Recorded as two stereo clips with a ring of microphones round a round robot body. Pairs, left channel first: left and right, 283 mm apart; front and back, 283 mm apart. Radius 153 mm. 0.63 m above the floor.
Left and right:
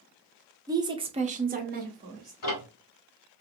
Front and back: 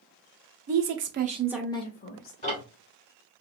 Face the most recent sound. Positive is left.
turn(degrees=65)